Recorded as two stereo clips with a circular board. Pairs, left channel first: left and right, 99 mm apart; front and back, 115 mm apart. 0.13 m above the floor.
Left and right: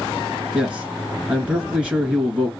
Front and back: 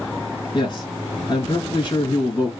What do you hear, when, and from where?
0.5 s a man speaking: 15° right, 1.9 m